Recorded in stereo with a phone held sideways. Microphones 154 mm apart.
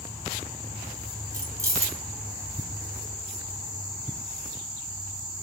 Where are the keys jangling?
20° right (ahead or behind), 0.7 m.